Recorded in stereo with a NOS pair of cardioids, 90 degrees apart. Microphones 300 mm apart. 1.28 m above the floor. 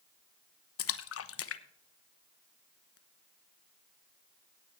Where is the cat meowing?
No cat meowing in this recording.